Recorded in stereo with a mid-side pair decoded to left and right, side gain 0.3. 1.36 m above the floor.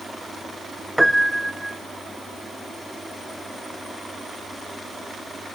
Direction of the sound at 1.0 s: 5° right.